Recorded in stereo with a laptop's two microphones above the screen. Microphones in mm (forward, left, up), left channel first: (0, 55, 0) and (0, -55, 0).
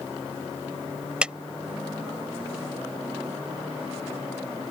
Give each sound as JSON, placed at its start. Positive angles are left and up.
{"t": 1.2, "sound": "a clap", "side_deg": -10}